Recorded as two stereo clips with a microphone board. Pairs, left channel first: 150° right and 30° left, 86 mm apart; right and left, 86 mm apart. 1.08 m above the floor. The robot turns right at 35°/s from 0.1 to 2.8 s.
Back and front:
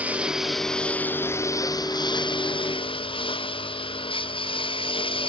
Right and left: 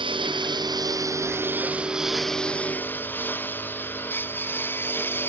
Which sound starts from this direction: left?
A lawn mower, at 0.0 s.